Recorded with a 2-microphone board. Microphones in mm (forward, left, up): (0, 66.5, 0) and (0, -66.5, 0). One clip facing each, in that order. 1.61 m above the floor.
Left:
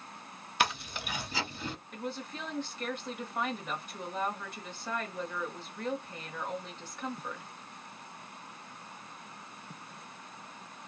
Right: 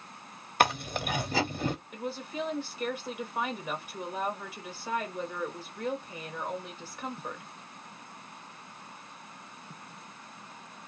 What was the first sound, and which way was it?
Chewing, 50° right (ahead or behind).